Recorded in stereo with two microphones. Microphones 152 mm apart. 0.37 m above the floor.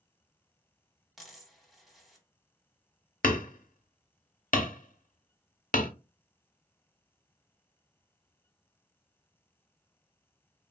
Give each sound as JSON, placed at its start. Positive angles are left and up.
{"t": 1.2, "sound": "a dropped coin", "side_deg": 0, "distance_m": 0.9}
{"t": 3.2, "sound": "hammering", "side_deg": 70, "distance_m": 0.6}